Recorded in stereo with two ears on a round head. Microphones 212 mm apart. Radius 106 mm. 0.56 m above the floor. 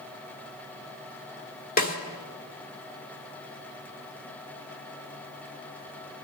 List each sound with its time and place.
1.8 s a snare drum: 40° left (ahead or behind), 1.5 m